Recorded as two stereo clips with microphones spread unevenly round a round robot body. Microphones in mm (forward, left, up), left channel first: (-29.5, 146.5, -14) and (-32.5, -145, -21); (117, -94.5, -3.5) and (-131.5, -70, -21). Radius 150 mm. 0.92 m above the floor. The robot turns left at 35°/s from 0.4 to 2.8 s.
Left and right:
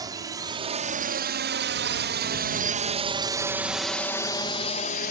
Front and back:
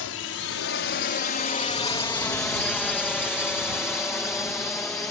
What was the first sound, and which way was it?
A drone, 15° right.